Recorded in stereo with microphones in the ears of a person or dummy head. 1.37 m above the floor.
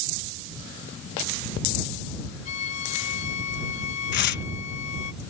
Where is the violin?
40° left (ahead or behind).